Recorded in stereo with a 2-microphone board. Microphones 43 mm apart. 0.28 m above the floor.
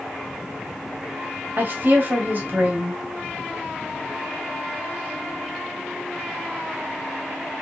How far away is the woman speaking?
About 1.9 m.